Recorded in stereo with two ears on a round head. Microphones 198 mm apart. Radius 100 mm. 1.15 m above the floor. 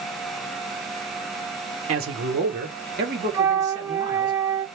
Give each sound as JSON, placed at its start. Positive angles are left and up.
{"t": 1.9, "sound": "a man speaking", "side_deg": -65, "distance_m": 1.0}
{"t": 3.3, "sound": "a flute", "side_deg": -10, "distance_m": 0.6}